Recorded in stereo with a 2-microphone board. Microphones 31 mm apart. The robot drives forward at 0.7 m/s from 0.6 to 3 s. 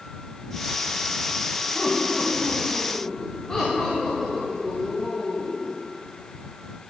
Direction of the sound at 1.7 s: 20° left (ahead or behind).